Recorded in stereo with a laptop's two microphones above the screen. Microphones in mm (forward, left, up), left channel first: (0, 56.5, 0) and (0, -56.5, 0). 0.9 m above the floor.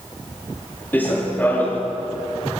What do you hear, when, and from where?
0.9 s running footsteps: 15° left (ahead or behind), 5.5 m